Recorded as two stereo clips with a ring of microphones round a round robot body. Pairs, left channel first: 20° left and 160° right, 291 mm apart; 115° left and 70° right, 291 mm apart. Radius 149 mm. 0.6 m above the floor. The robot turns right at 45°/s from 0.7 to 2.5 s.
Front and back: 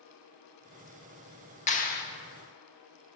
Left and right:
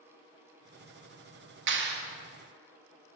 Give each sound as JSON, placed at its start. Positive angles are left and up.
{"t": 1.7, "sound": "a clap", "azimuth_deg": -35, "distance_m": 1.2}